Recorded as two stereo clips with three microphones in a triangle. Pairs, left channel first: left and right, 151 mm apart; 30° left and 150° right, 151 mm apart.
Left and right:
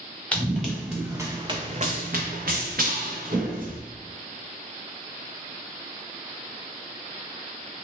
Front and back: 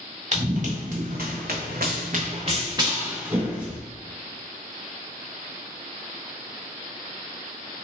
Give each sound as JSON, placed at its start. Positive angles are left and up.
{"t": 0.3, "sound": "running footsteps", "azimuth_deg": 175, "distance_m": 0.9}